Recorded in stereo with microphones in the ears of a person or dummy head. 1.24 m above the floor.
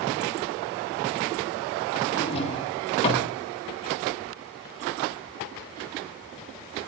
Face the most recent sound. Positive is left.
turn(degrees=30)  # may be behind; listen again after turning